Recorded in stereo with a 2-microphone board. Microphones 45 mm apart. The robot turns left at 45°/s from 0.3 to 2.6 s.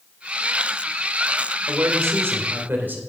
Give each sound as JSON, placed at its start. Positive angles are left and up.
{"t": 1.7, "sound": "a man speaking", "azimuth_deg": -95, "distance_m": 2.5}